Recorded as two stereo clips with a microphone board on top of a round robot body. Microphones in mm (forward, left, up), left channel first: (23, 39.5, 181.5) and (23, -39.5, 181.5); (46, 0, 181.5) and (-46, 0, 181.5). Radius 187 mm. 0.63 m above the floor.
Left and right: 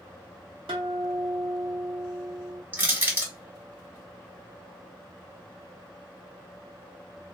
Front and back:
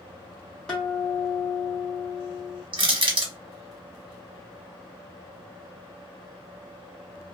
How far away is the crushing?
About 1.3 m.